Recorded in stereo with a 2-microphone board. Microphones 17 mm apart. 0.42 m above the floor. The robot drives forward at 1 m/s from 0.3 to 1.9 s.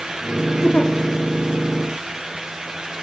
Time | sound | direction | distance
0.6 | a giggle | 80° left | 3.5 m